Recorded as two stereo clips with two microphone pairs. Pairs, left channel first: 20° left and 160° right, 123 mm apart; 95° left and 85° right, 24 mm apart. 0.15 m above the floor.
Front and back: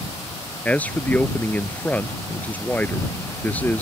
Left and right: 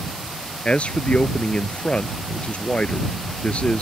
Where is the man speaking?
95° left.